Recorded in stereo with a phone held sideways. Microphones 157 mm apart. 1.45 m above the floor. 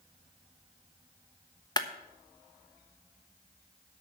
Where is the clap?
25° left (ahead or behind), 1.1 m.